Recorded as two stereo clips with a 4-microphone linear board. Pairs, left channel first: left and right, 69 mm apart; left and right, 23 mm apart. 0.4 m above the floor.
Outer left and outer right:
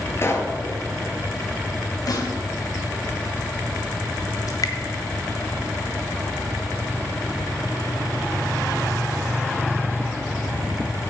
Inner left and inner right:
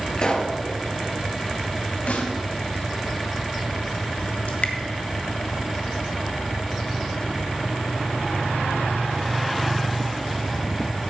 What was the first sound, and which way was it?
A pop, 35° left (ahead or behind).